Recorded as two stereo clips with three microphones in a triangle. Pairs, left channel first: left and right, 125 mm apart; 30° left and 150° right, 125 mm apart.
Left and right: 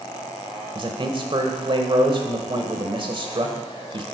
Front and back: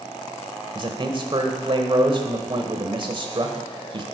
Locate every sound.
0.8 s a man speaking: 120° right, 1.2 m